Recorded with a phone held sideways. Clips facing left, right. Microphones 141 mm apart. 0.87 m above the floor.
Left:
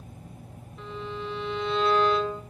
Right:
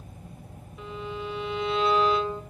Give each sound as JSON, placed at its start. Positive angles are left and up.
{"t": 0.8, "sound": "a violin", "side_deg": -5, "distance_m": 2.5}